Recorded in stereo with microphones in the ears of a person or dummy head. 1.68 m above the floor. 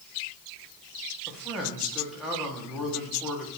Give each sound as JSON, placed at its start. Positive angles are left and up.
{"t": 1.3, "sound": "a man speaking", "side_deg": 0, "distance_m": 1.5}